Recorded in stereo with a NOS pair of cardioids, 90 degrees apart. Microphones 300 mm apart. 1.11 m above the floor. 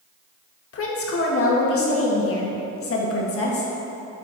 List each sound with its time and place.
0.7 s a woman speaking: 50° left, 1.4 m